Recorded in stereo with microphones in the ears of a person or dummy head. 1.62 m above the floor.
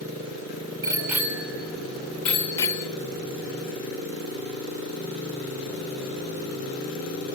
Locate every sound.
0.8 s a bicycle bell: 20° right (ahead or behind), 2.5 m; by 2.9 s 20° left (ahead or behind), 1.9 m